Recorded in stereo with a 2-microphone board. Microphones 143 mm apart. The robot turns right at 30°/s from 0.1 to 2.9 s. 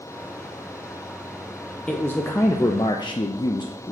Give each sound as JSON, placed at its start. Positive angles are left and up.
{"t": 1.9, "sound": "a man speaking", "azimuth_deg": 10, "distance_m": 0.5}